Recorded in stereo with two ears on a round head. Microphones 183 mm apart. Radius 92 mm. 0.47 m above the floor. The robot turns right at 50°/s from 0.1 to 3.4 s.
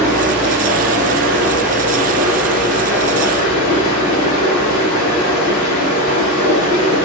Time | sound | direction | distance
0.0 | running water | 130° right | 0.9 m